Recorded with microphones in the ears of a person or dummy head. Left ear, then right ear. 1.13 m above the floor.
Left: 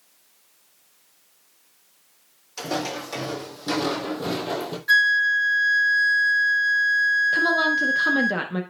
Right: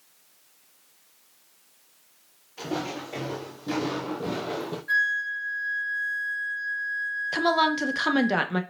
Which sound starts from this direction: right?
A woman speaking, at 7.3 s.